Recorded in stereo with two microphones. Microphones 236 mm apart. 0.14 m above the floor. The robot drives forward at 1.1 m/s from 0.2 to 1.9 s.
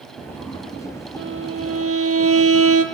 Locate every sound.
1.2 s a violin: 55° right (ahead or behind), 1.3 m; by 2.9 s 75° right (ahead or behind), 1.1 m